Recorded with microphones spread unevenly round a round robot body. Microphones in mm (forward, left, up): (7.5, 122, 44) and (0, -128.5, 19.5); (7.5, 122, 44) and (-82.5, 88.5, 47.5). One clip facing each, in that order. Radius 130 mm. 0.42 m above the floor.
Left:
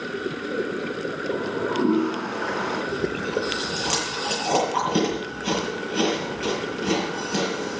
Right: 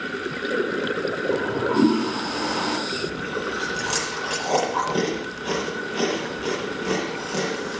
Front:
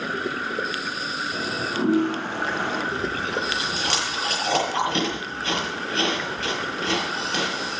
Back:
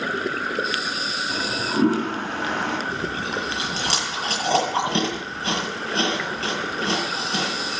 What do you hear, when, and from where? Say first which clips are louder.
1.3 s a toilet flushing: right 3 dB, back 4 dB; 125° right, 3 m
2.9 s chewing: left 3 dB, front 1 dB; 145° left, 9 m